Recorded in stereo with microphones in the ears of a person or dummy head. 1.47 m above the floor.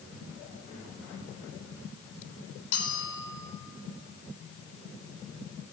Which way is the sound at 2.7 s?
55° left (ahead or behind).